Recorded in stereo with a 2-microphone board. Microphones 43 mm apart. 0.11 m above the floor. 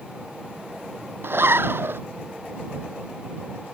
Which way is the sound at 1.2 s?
60° right (ahead or behind).